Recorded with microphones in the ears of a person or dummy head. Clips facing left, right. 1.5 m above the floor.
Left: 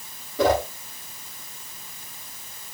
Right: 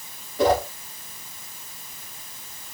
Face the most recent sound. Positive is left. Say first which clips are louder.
# even
turn(degrees=65)  # may be behind; listen again after turning